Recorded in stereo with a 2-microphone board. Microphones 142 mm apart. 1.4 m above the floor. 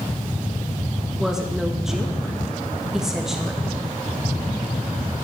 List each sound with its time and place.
1.2 s a woman speaking: 5° right (ahead or behind), 2.5 m